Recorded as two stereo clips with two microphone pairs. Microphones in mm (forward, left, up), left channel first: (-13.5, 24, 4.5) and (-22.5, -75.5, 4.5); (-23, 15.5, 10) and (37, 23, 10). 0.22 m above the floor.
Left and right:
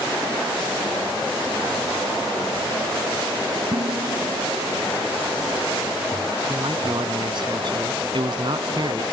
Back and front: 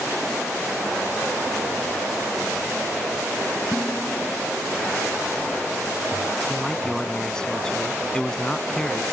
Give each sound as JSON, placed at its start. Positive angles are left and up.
{"t": 3.7, "sound": "dishes clattering", "azimuth_deg": -130}
{"t": 6.5, "sound": "a man speaking", "azimuth_deg": -100}